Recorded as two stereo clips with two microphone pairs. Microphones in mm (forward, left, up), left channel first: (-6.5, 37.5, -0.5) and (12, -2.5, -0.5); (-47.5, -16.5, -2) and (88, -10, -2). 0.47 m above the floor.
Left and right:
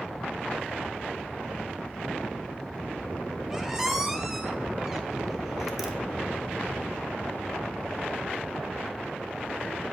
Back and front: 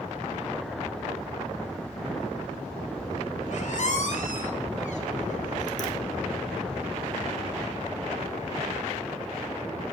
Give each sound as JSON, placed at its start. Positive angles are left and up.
{"t": 3.5, "sound": "a squeak", "azimuth_deg": -150, "distance_m": 0.7}